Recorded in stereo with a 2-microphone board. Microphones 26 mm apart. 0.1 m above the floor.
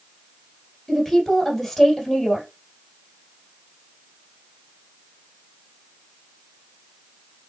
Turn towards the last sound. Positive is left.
turn(degrees=0)  # may be behind; listen again after turning